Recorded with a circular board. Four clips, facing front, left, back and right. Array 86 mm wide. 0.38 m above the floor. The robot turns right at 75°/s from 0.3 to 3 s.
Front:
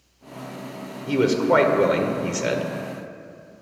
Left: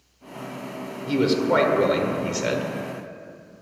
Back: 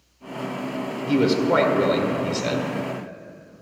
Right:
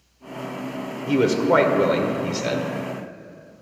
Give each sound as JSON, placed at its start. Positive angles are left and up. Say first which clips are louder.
{"t": 1.1, "sound": "a man speaking", "louder": "right 2 dB, even", "azimuth_deg": -70, "distance_m": 1.1}